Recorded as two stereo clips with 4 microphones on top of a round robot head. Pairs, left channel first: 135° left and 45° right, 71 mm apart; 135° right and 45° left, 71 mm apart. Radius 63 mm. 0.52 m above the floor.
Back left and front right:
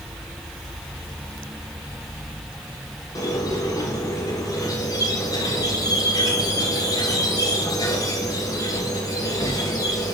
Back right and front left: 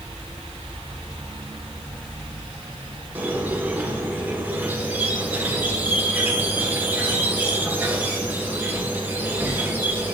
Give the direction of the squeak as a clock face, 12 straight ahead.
8 o'clock.